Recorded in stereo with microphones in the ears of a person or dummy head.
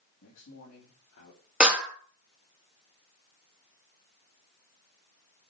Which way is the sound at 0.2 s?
75° left (ahead or behind).